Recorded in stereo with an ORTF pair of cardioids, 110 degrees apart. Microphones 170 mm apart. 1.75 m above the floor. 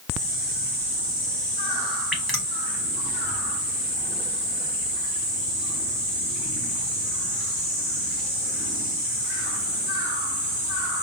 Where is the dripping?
Straight ahead, 1.2 m.